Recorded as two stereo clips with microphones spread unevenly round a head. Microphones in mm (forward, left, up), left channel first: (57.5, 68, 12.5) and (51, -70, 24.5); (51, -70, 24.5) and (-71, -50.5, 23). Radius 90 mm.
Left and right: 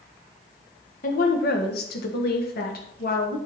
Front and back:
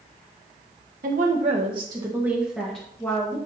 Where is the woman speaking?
130° left, 1.5 m; by 3.4 s 65° left, 2 m.